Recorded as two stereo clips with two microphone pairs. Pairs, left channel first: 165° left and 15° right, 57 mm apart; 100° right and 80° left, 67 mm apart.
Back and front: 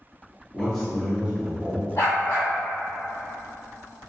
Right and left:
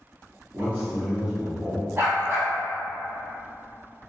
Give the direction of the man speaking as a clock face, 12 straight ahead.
8 o'clock.